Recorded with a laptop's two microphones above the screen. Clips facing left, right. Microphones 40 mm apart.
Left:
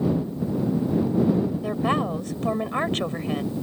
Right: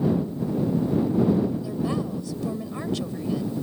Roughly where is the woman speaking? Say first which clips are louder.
Left 4 dB; left.